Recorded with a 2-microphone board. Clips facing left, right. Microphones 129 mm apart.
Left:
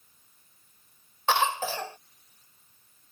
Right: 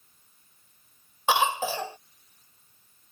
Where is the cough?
15° right (ahead or behind).